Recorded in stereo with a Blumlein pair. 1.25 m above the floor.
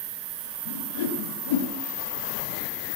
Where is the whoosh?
55° left, 2 m.